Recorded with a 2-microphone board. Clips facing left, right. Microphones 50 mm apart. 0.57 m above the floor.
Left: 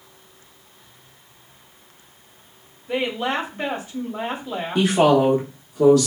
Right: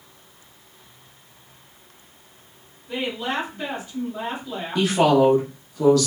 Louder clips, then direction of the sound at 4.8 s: Left 1 dB; 20° left (ahead or behind).